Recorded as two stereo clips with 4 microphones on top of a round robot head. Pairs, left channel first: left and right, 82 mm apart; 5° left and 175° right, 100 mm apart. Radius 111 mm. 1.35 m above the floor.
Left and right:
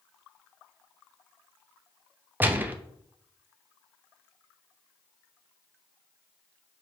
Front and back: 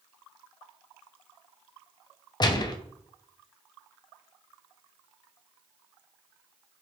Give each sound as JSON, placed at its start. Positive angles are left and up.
{"t": 2.4, "sound": "a gunshot", "azimuth_deg": -25, "distance_m": 0.6}